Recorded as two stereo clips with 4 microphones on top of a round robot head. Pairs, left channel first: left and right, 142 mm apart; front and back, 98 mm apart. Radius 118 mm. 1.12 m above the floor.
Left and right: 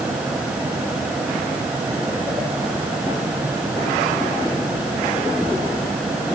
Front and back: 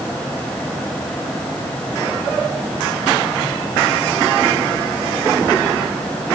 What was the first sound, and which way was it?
Only background noise.